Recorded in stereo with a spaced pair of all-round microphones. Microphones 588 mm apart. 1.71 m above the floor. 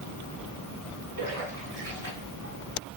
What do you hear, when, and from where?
1.2 s a splash: 25° right (ahead or behind), 1.8 m